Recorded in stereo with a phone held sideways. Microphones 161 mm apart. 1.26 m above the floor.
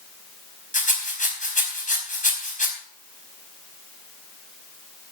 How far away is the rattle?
About 4.5 m.